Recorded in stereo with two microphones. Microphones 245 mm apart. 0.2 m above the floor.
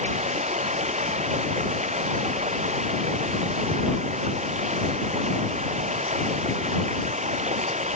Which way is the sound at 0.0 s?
30° right (ahead or behind).